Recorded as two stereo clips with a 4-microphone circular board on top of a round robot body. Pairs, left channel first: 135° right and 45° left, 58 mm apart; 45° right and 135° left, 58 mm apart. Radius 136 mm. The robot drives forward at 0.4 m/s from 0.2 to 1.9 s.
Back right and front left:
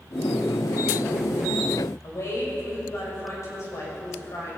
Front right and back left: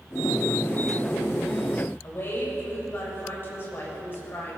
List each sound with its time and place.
2.0 s a woman speaking: 100° right, 7 m